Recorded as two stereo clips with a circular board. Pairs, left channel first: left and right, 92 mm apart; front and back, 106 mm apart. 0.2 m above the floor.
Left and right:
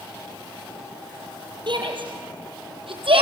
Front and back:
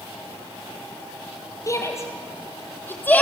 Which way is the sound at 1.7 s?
60° right.